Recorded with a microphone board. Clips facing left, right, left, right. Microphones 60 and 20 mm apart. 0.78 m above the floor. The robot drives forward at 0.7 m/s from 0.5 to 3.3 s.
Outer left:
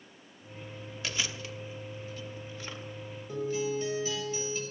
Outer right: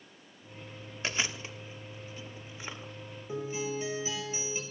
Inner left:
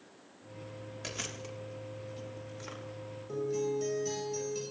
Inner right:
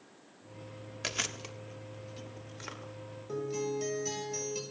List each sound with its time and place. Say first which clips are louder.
1.0 s chewing: outer right 2 dB, inner right 5 dB; 30° right (ahead or behind), 1.5 m; by 2.9 s 15° right (ahead or behind), 2.5 m
3.3 s a guitar: outer left 3 dB, inner left 2 dB; 20° right (ahead or behind), 6.5 m